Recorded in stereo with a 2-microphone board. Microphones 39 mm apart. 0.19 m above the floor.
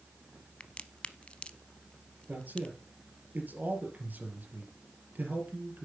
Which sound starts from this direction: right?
A man speaking, at 2.3 s.